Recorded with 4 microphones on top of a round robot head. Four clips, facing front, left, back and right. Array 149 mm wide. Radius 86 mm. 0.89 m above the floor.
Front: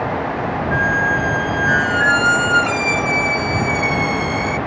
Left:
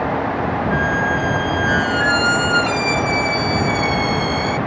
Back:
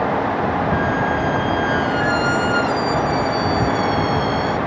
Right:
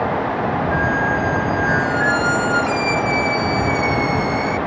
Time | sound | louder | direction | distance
0.7 | a squeak | even, front 1 dB | 25° left | ?